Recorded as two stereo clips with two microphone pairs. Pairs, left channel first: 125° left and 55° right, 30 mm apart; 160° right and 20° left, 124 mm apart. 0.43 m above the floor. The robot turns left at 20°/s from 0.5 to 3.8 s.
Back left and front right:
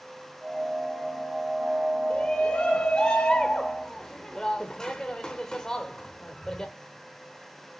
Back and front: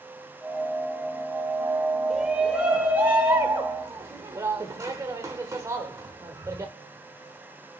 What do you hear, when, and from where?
2.1 s a shout: 105° left, 1.0 m; by 6.7 s 70° left, 1.0 m